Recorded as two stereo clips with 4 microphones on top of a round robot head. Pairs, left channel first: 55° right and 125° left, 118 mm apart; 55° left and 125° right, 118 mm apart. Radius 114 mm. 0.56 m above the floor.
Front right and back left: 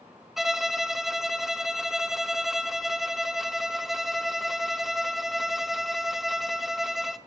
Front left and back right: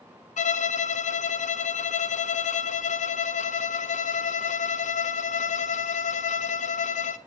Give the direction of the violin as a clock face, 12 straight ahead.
11 o'clock.